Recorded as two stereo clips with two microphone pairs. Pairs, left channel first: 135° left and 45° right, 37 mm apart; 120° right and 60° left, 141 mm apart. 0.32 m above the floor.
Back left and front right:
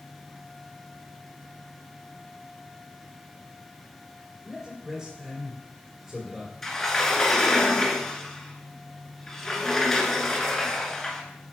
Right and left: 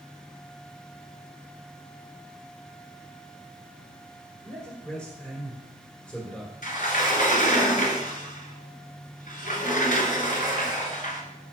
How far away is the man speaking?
About 1.5 m.